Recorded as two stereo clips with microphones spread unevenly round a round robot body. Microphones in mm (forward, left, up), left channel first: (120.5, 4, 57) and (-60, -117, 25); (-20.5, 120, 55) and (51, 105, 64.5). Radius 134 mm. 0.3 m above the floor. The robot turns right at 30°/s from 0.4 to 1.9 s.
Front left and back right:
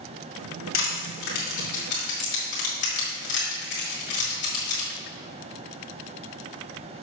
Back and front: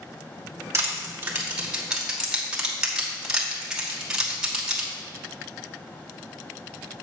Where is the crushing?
35° left, 2.5 m; by 4.9 s 70° left, 2.5 m.